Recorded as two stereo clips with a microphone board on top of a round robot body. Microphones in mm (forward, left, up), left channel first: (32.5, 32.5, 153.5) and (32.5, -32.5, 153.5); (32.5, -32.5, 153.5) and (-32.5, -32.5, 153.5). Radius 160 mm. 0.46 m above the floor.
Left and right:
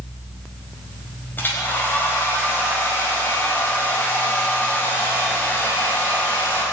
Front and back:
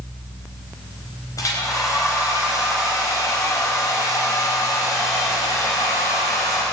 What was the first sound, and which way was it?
A hair dryer, 30° left.